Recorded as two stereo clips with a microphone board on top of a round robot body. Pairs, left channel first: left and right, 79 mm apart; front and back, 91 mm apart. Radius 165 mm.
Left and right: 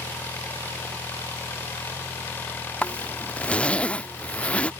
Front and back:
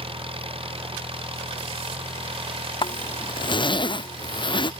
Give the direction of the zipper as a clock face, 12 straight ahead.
11 o'clock.